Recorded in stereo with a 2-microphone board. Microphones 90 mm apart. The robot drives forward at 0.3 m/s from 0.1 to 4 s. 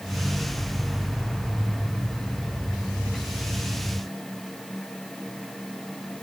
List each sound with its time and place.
Only background noise.